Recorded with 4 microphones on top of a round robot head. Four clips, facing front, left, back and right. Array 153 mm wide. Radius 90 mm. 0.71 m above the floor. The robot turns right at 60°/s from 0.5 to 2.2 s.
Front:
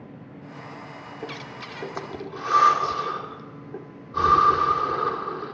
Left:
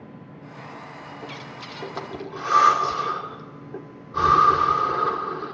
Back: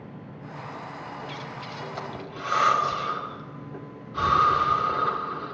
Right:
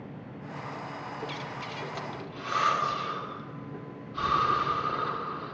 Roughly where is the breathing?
Ahead.